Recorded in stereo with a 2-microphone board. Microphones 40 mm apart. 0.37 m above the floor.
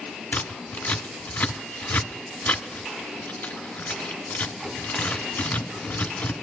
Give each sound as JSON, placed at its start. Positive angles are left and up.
{"t": 0.3, "sound": "scissors", "side_deg": 50, "distance_m": 1.4}